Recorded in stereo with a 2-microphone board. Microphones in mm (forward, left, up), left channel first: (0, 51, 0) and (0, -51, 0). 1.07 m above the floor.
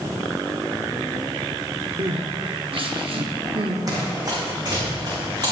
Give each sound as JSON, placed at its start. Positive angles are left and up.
{"t": 2.0, "sound": "crying", "side_deg": -60, "distance_m": 1.0}
{"t": 3.9, "sound": "running footsteps", "side_deg": -40, "distance_m": 3.0}